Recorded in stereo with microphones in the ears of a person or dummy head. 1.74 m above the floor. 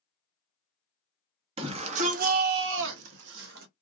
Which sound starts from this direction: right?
A shout, at 1.6 s.